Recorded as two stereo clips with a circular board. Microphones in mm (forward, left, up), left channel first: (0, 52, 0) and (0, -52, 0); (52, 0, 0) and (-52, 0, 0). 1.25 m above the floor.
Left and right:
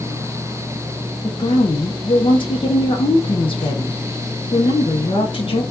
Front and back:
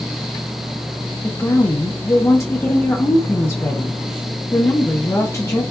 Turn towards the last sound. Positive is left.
turn(degrees=60)